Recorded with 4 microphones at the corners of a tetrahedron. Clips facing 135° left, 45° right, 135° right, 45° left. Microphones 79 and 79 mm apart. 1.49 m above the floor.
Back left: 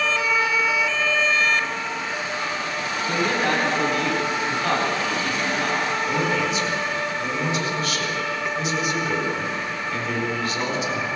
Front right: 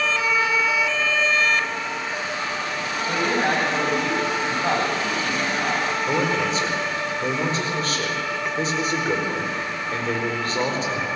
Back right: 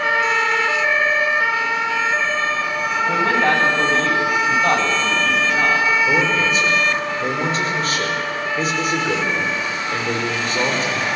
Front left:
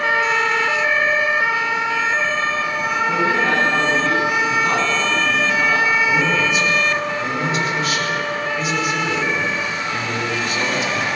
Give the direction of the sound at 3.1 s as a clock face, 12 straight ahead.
4 o'clock.